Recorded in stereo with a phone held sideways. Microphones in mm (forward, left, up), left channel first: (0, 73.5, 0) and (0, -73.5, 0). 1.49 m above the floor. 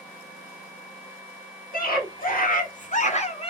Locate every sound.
1.7 s a scream: 75° left (ahead or behind), 1.8 m; by 3.5 s 40° left (ahead or behind), 0.9 m